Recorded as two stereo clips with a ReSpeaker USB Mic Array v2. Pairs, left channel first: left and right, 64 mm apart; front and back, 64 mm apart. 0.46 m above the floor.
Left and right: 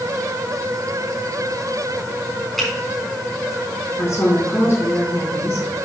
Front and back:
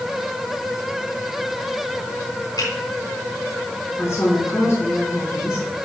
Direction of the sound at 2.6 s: Straight ahead.